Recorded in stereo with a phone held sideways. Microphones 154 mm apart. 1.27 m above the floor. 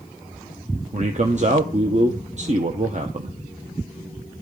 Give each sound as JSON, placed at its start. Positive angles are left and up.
{"t": 0.9, "sound": "a man speaking", "side_deg": -50, "distance_m": 0.9}